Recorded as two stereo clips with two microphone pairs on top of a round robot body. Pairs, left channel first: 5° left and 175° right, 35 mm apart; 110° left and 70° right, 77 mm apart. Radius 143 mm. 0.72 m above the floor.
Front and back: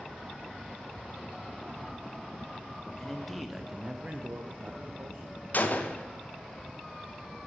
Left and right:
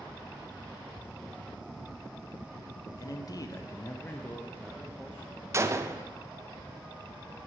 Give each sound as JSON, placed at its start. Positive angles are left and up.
{"t": 3.0, "sound": "a man speaking", "azimuth_deg": 90, "distance_m": 0.8}
{"t": 5.5, "sound": "a gunshot", "azimuth_deg": -25, "distance_m": 0.7}